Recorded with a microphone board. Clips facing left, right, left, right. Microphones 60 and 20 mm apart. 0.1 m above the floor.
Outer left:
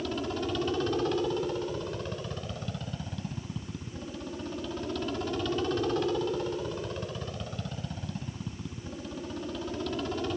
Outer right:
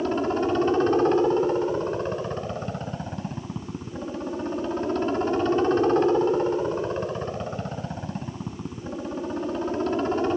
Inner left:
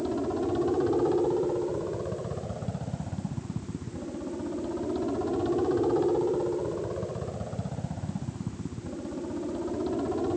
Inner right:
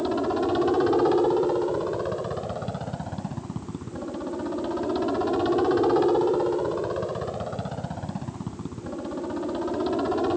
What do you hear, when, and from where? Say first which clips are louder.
0.0 s a helicopter: outer right 9 dB, inner right 4 dB; 35° right (ahead or behind)